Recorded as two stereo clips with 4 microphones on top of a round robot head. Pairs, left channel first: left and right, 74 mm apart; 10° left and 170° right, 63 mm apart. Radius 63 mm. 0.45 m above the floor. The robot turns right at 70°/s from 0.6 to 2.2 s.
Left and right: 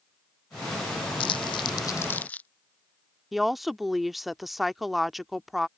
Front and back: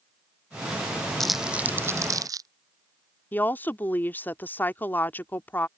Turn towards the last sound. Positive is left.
turn(degrees=-5)